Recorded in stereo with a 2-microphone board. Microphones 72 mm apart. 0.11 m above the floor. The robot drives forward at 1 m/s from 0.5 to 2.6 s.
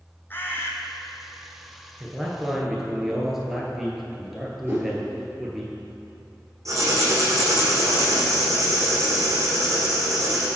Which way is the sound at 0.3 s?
30° left (ahead or behind).